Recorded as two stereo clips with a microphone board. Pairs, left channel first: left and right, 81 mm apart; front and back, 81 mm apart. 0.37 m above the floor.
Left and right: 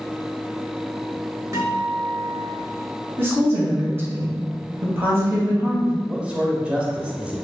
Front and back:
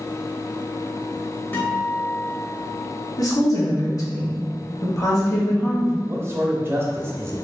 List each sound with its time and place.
1.5 s a guitar: 60° right, 1.4 m
3.2 s a woman speaking: 35° right, 1.9 m
6.1 s a man speaking: 155° right, 1.0 m